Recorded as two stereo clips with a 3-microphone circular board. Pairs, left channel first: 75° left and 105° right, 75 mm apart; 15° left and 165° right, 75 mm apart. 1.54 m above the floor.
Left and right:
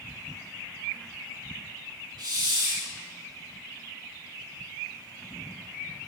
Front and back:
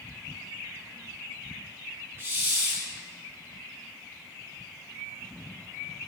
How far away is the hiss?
About 4.5 m.